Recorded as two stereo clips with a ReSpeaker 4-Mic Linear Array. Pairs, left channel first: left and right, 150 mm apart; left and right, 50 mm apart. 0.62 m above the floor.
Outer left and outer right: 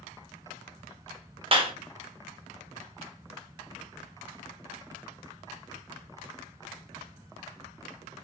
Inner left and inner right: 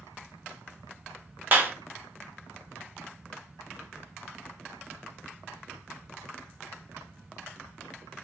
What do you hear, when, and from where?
1.5 s a clap: 40° right (ahead or behind), 1.0 m